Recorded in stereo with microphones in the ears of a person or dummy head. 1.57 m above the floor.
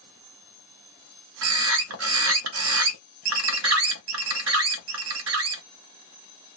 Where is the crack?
I don't hear a crack.